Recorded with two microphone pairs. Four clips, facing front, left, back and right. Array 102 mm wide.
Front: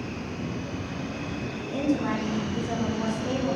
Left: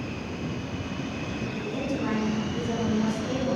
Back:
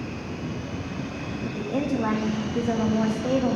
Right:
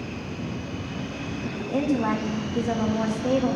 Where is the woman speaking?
130° right, 2.0 m.